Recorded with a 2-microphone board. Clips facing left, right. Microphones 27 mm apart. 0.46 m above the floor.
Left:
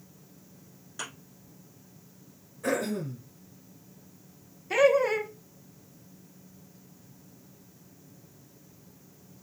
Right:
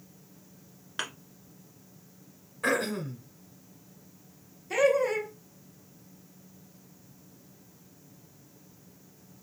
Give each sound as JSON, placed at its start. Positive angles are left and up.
{"t": 1.0, "sound": "a thud", "side_deg": -60, "distance_m": 1.6}
{"t": 2.6, "sound": "throat clearing", "side_deg": -85, "distance_m": 1.7}
{"t": 4.7, "sound": "laughter", "side_deg": 20, "distance_m": 0.9}